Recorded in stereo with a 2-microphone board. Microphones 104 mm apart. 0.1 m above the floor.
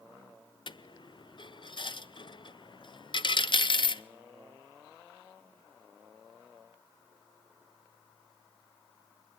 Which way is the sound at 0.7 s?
55° left (ahead or behind).